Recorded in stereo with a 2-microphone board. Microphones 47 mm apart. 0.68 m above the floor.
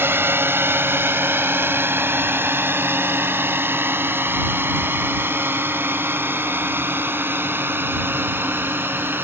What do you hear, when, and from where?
0.0 s a drone: 55° right (ahead or behind); by 9.3 s 50° right (ahead or behind)